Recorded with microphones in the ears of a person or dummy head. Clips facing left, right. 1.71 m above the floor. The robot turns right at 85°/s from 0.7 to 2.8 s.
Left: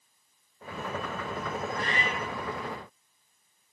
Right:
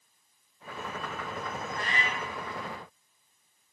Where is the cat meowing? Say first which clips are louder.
Left 3 dB; 20° left (ahead or behind), 0.9 m; by 2.3 s 15° left (ahead or behind), 0.9 m.